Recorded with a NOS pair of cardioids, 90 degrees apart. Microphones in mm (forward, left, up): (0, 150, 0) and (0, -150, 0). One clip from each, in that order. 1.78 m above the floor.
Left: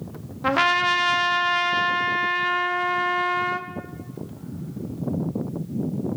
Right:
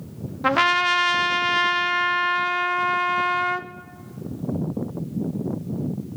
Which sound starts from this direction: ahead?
A trumpet, at 0.4 s.